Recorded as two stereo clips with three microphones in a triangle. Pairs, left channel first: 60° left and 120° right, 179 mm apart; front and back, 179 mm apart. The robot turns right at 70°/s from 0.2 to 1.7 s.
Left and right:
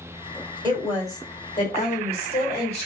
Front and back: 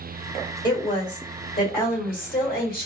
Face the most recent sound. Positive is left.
turn(degrees=10)